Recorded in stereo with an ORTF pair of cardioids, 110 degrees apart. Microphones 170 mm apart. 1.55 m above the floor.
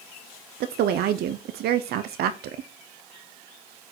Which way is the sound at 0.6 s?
70° right.